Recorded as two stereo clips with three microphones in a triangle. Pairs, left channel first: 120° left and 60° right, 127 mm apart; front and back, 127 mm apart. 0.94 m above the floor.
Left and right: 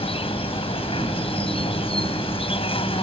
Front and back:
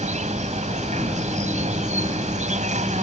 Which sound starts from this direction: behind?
An insect, at 0.0 s.